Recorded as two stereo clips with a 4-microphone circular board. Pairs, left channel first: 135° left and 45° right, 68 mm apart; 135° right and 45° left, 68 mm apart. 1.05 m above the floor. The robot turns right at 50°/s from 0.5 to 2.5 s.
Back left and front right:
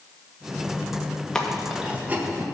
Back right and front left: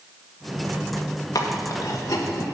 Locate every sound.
1.4 s chewing: 145° right, 1.2 m; by 2.5 s 90° right, 1.2 m